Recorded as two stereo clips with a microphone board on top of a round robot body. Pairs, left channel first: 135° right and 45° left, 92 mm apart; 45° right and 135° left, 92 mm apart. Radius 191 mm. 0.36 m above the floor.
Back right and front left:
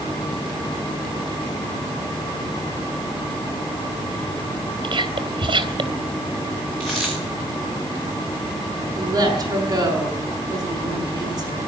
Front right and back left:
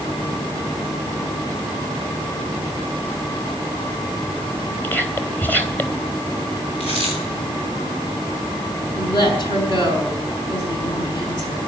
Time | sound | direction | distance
4.8 | whispering | 25° left | 3 m
6.8 | a dropped coin | 45° right | 7 m
8.9 | a woman speaking | 5° right | 6 m